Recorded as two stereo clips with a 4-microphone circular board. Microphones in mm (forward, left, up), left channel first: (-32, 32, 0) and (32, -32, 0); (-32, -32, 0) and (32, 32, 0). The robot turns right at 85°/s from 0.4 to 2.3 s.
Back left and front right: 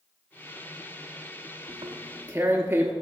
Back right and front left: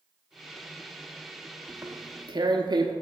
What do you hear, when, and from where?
1.7 s tearing paper: 35° right, 0.8 m; by 2.9 s 15° left, 0.8 m